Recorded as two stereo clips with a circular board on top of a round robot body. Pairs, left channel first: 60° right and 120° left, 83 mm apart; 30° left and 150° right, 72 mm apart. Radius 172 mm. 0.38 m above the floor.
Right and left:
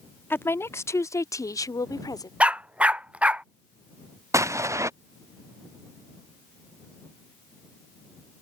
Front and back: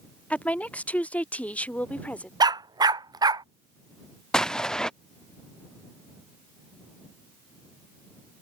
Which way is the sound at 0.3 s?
25° right.